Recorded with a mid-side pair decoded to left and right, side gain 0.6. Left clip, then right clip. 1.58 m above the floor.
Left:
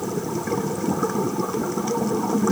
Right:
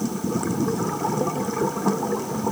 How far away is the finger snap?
I don't hear a finger snap.